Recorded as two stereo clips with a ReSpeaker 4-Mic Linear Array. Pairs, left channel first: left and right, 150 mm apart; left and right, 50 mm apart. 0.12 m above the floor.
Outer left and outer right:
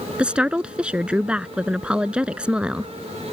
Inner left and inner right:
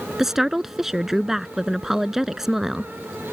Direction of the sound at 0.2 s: 10° right (ahead or behind).